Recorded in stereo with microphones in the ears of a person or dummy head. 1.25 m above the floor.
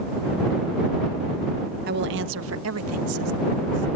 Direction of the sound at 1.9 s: 50° right (ahead or behind).